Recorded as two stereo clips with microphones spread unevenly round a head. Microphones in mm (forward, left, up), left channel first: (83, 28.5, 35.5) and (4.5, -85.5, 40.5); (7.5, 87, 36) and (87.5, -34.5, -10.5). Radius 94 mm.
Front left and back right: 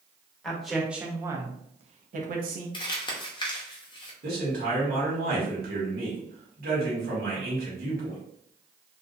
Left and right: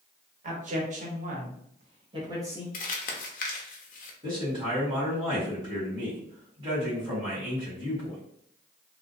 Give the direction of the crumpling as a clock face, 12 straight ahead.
9 o'clock.